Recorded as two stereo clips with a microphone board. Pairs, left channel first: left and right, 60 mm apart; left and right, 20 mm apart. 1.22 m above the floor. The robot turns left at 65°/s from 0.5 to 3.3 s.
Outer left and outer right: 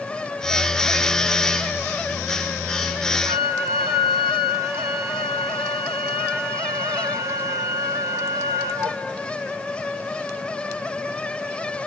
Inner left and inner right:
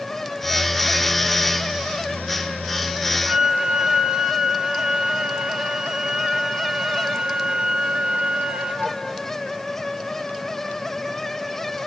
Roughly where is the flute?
Right.